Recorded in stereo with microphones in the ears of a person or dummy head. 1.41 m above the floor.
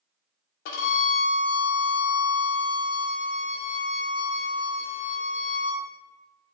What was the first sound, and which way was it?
A violin, 60° left (ahead or behind).